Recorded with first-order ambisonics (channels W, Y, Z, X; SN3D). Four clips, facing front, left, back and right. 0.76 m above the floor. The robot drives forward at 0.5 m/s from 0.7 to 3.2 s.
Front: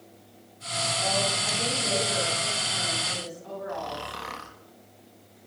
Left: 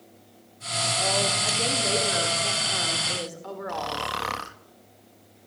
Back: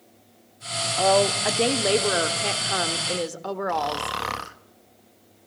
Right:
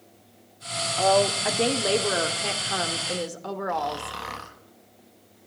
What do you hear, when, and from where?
1.0 s a woman speaking: 150° right, 2.0 m; by 4.2 s 160° right, 3 m
3.7 s snoring: 145° left, 1.0 m